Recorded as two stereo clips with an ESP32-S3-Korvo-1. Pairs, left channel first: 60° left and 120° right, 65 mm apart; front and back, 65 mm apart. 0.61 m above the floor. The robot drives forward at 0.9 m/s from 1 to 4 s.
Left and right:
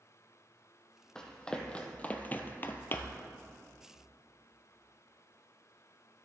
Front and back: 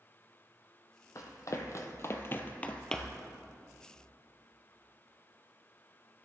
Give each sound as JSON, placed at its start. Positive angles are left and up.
{"t": 1.1, "sound": "running footsteps", "azimuth_deg": -20, "distance_m": 1.1}